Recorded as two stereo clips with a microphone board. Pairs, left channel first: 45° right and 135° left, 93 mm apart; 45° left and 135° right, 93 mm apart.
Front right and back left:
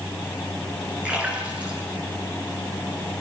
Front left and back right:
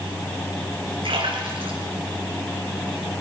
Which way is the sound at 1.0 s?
150° right.